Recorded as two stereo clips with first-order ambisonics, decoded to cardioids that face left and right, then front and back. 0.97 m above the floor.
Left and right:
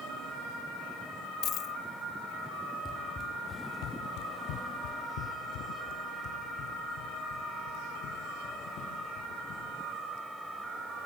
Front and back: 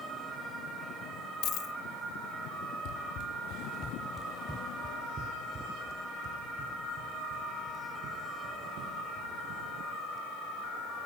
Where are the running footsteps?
10° left, 1.9 m; by 9.7 s 140° left, 8 m.